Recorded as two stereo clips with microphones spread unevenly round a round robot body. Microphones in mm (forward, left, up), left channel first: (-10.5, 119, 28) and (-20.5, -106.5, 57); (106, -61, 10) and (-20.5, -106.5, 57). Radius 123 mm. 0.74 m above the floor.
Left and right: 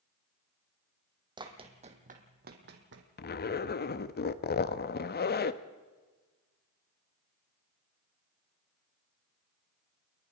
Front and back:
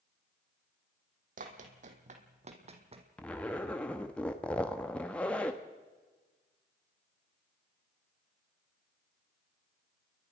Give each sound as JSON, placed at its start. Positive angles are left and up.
{"t": 1.4, "sound": "running footsteps", "azimuth_deg": -160, "distance_m": 2.5}
{"t": 3.2, "sound": "a zipper", "azimuth_deg": 80, "distance_m": 0.9}